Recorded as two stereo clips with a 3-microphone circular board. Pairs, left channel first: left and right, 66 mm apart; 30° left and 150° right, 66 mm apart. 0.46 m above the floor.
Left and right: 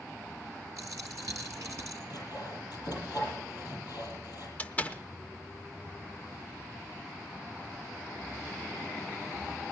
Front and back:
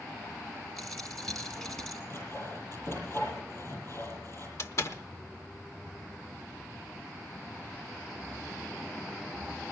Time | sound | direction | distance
0.8 | a dropped coin | 50° right | 1.9 m
2.1 | sawing | 75° left | 7.5 m
4.6 | a door slam | 35° left | 0.7 m